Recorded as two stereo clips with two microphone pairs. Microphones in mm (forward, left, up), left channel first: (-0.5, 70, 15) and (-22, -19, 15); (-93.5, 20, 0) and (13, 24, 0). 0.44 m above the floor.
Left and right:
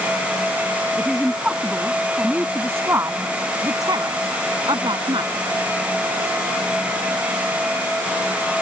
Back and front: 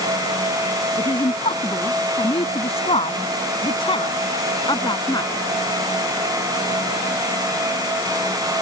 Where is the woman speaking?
165° left; by 5.3 s 130° right.